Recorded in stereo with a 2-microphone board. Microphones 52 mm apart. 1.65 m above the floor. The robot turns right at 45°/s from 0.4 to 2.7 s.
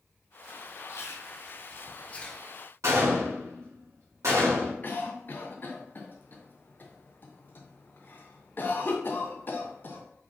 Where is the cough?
40° left (ahead or behind), 0.7 m.